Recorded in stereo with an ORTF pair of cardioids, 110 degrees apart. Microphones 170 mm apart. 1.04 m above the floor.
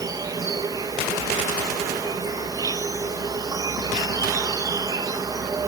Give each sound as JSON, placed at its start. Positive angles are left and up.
{"t": 0.0, "sound": "an insect", "azimuth_deg": -20, "distance_m": 0.8}